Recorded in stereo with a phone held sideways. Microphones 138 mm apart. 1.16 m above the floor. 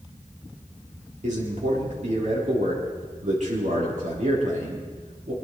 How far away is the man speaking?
About 4 m.